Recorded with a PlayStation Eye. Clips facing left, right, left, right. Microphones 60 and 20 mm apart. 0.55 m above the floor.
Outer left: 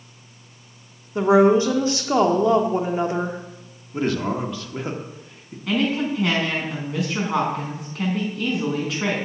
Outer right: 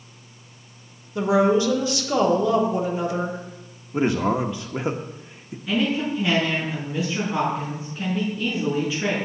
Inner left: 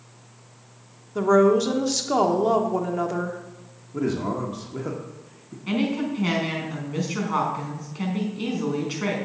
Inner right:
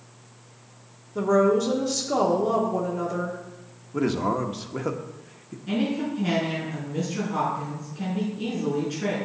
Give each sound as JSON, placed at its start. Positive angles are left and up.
{"t": 1.1, "sound": "a woman speaking", "side_deg": 35, "distance_m": 1.4}
{"t": 3.9, "sound": "a man speaking", "side_deg": -20, "distance_m": 0.9}
{"t": 5.7, "sound": "a woman speaking", "side_deg": 80, "distance_m": 4.5}